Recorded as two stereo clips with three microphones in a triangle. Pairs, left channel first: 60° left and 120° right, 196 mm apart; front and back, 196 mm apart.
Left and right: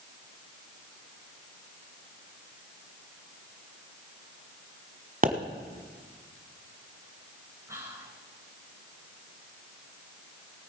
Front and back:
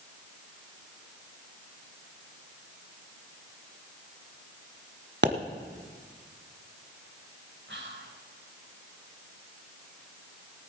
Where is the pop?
160° right, 1.2 m.